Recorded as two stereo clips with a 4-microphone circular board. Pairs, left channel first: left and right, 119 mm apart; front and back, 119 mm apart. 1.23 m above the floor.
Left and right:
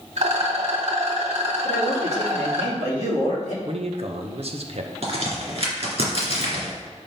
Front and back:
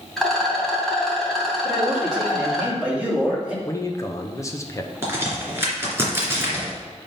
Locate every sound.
0.2 s a rattle: 85° right, 2.5 m
1.6 s a man speaking: 100° right, 3 m
3.6 s a man speaking: 60° right, 0.9 m
5.0 s a crack: 110° right, 2.5 m